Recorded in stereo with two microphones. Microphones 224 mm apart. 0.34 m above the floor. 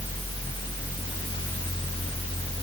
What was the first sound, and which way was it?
Only background noise.